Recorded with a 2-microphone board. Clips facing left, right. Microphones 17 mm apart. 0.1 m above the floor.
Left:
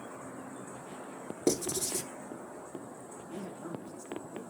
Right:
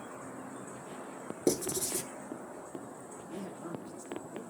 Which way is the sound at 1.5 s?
10° left (ahead or behind).